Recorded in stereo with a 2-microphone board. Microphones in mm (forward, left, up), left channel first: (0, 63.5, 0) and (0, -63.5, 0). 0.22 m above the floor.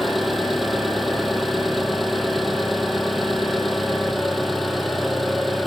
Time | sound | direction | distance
0.0 | an engine running | centre (ahead or behind) | 1.8 m